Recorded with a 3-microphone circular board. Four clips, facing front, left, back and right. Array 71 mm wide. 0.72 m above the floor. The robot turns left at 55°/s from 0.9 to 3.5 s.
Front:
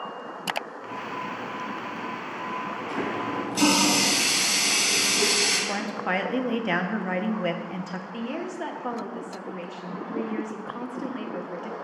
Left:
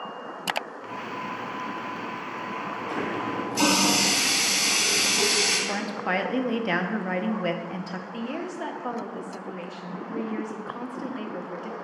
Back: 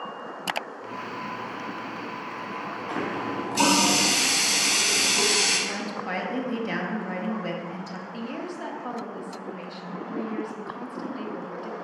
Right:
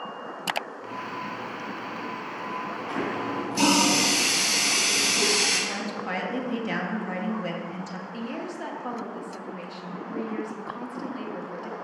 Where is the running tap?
150° right, 3 m; by 5.6 s straight behind, 3 m.